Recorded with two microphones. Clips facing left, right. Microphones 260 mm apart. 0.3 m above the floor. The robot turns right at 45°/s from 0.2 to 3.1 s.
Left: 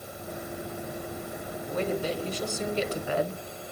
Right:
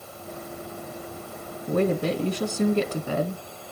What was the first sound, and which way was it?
A woman speaking, 115° right.